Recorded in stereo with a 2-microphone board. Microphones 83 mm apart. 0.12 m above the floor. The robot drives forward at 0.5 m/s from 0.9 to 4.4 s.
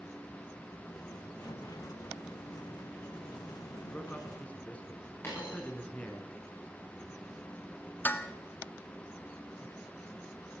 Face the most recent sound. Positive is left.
turn(degrees=20)  # may be behind; listen again after turning